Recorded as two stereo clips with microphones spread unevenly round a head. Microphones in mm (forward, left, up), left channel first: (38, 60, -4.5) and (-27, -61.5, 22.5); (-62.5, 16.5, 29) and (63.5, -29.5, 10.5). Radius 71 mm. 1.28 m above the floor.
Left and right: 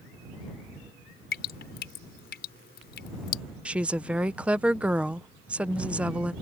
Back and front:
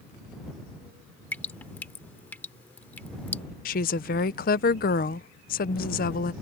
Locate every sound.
1.3 s dripping: 85° left
3.6 s a woman speaking: 155° left